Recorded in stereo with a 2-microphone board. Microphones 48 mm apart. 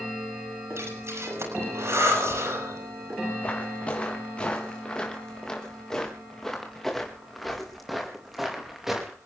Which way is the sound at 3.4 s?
30° left (ahead or behind).